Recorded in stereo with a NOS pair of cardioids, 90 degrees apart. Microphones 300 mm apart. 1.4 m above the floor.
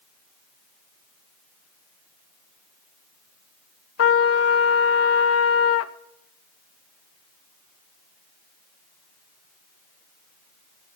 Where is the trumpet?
55° left, 1.0 m.